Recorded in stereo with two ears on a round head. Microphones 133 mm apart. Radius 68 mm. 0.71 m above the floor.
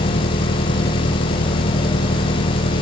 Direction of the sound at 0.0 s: 80° left.